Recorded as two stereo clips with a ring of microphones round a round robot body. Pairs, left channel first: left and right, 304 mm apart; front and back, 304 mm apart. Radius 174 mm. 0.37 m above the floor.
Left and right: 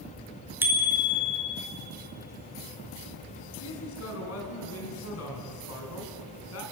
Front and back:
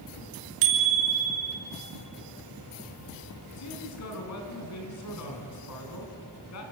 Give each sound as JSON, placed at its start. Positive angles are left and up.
{"t": 0.6, "sound": "a bicycle bell", "azimuth_deg": -175, "distance_m": 4.5}
{"t": 3.6, "sound": "a man speaking", "azimuth_deg": 40, "distance_m": 5.0}